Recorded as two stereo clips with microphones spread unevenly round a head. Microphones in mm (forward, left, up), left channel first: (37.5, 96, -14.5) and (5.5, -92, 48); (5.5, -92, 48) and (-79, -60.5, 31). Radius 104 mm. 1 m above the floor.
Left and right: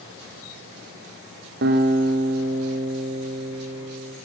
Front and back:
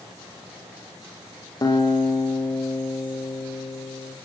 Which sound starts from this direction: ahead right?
A guitar, at 1.6 s.